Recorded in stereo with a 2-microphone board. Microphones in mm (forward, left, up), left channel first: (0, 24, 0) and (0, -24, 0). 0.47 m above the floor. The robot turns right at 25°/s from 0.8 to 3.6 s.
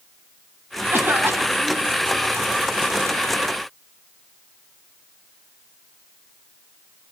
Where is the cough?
50° right (ahead or behind), 4.5 m; by 1.9 s 75° right (ahead or behind), 4.5 m.